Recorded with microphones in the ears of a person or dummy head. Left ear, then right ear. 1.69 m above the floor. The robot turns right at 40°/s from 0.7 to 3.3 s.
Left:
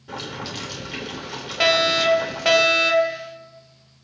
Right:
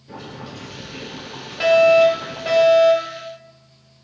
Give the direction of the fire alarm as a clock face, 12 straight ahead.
11 o'clock.